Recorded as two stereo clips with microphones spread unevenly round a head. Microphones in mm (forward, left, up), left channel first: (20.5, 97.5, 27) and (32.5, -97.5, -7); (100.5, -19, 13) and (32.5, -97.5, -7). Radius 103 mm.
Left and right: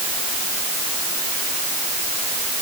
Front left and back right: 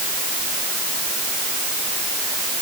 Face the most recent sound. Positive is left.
No sound to turn to.